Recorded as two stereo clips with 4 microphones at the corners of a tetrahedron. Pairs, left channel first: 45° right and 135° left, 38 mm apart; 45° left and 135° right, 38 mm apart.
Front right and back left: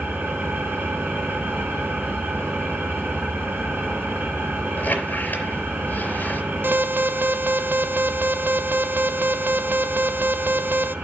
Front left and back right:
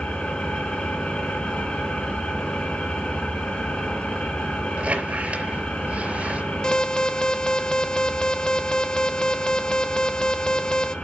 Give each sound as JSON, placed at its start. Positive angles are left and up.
{"t": 0.0, "sound": "an engine running", "azimuth_deg": 110, "distance_m": 5.5}
{"t": 4.8, "sound": "a squeak", "azimuth_deg": -90, "distance_m": 4.0}
{"t": 6.6, "sound": "an alarm", "azimuth_deg": 115, "distance_m": 0.6}